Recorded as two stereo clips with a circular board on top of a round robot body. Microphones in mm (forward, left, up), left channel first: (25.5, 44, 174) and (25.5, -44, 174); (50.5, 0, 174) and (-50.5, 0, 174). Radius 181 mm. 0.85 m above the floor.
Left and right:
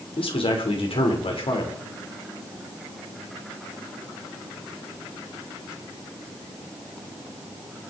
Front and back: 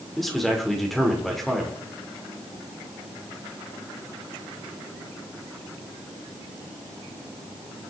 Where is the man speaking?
90° left, 3 m.